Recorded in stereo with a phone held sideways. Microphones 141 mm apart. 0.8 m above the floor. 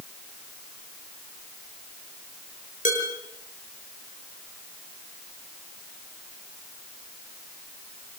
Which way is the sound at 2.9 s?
65° left (ahead or behind).